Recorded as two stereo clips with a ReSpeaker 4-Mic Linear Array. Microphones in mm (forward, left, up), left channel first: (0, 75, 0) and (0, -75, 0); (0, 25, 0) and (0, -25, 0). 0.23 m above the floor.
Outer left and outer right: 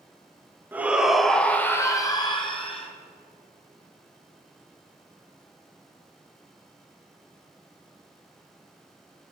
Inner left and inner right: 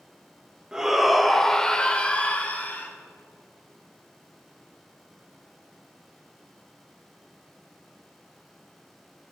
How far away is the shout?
About 1.5 m.